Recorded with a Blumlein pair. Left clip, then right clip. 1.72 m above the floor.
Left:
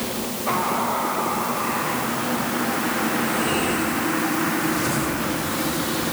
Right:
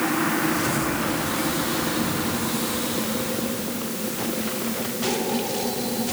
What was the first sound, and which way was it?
Only background noise.